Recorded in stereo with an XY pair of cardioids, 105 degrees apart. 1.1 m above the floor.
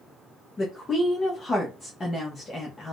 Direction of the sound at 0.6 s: 35° left.